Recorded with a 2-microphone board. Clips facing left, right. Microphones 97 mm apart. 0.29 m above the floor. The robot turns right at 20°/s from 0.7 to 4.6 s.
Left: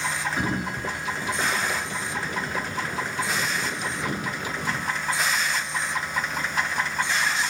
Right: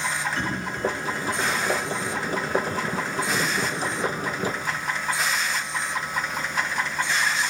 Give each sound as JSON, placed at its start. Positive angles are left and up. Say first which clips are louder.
{"t": 0.4, "sound": "a sliding door", "louder": "even", "side_deg": 10, "distance_m": 1.0}